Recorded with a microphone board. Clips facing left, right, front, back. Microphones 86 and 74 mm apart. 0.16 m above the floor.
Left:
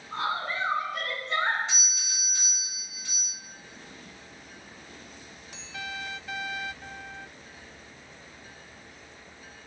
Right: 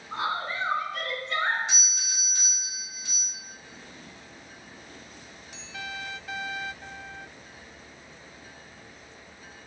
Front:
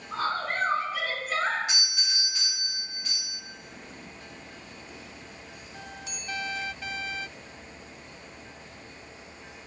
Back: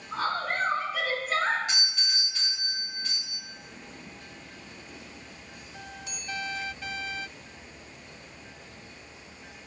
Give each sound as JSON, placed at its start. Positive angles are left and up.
{"t": 0.1, "sound": "a woman speaking", "azimuth_deg": -75, "distance_m": 1.1}
{"t": 1.7, "sound": "a doorbell", "azimuth_deg": -45, "distance_m": 1.8}